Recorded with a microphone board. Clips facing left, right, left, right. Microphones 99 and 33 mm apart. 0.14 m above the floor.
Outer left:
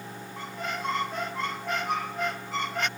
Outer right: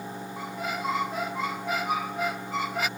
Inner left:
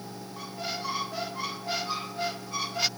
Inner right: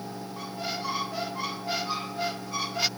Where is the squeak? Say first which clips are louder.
Outer right 1 dB, inner right 1 dB; 5° right (ahead or behind).